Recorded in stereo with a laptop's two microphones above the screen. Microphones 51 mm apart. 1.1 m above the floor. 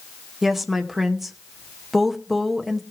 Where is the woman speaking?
5° right (ahead or behind), 0.9 m.